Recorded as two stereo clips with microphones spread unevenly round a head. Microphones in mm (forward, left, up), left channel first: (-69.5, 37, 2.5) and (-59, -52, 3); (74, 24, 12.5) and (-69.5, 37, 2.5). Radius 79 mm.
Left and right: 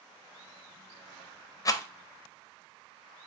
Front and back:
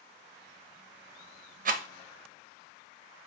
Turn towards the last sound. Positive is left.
turn(degrees=145)